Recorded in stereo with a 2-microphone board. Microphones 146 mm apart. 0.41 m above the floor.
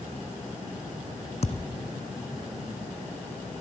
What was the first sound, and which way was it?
A thud, 50° left (ahead or behind).